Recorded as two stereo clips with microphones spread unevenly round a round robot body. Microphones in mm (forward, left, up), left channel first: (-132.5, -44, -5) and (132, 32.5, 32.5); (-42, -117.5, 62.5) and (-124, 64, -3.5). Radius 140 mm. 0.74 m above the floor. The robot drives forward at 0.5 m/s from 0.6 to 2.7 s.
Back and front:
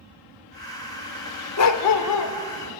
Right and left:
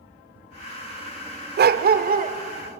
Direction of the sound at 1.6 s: 160° left.